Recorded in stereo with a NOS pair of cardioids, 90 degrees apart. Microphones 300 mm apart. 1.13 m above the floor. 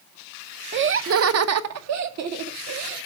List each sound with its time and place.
0.7 s laughter: 40° right, 0.6 m; by 3.0 s 65° right, 2.0 m